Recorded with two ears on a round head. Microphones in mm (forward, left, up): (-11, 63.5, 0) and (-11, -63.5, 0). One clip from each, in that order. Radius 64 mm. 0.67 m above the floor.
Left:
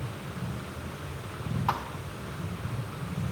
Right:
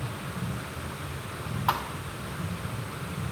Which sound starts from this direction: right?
A thud, at 1.7 s.